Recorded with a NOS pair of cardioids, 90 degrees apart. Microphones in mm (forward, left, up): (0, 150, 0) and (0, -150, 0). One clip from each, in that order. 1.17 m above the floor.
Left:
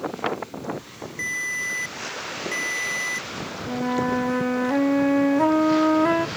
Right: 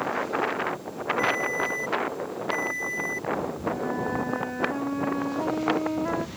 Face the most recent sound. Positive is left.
turn(degrees=55)